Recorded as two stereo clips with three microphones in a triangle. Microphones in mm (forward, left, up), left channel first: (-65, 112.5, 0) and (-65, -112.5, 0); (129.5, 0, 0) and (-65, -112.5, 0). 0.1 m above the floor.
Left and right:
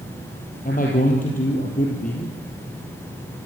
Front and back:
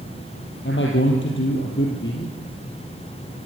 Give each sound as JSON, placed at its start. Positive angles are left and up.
{"t": 0.7, "sound": "a man speaking", "azimuth_deg": 45, "distance_m": 3.5}